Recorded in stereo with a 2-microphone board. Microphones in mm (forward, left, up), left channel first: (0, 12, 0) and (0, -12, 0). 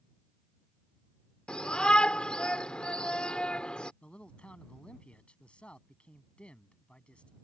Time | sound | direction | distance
1.5 | a shout | 45° left (ahead or behind) | ?
4.0 | a man speaking | 55° left (ahead or behind) | ?